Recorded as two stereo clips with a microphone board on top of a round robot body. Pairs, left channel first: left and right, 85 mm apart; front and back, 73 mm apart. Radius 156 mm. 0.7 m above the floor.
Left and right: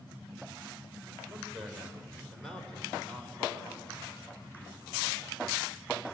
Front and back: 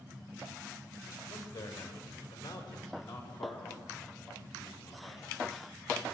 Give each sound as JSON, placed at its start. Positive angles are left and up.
{"t": 1.3, "sound": "a man speaking", "azimuth_deg": -10, "distance_m": 4.0}